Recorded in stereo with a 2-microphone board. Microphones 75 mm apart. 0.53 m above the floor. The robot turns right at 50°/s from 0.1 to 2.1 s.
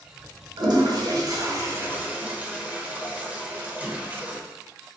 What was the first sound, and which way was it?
A toilet flushing, 65° right (ahead or behind).